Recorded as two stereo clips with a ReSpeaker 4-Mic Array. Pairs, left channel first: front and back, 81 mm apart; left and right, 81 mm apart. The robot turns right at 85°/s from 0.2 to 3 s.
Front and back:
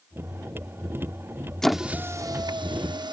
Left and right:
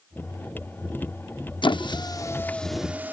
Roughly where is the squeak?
Left.